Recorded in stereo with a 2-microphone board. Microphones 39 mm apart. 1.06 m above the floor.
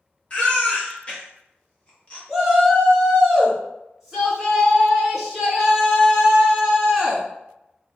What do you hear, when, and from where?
0.3 s a baby crying: 30° left (ahead or behind), 1.0 m
2.3 s a shout: 5° right (ahead or behind), 1.8 m